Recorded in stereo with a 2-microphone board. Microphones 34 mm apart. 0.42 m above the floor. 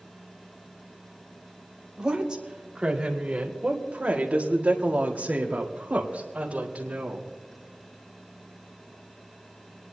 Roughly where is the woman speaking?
Centre.